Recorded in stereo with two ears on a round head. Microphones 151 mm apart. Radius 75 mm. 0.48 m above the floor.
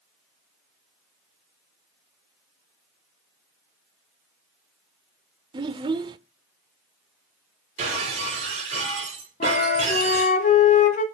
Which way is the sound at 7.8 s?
45° right (ahead or behind).